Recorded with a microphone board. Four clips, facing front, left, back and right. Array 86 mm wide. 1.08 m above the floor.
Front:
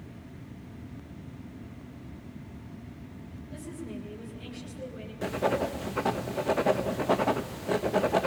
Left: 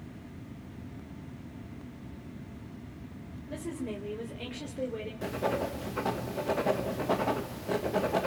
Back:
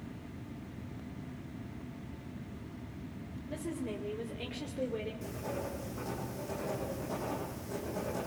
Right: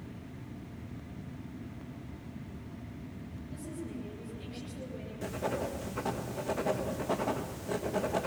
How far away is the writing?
About 1.6 m.